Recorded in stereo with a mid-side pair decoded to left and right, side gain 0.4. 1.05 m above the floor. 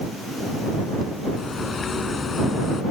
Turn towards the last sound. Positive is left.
turn(degrees=45)